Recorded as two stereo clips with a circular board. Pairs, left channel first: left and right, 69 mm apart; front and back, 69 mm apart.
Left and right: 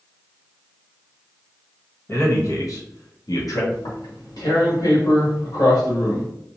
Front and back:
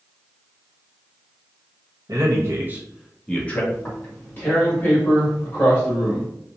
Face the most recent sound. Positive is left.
turn(degrees=65)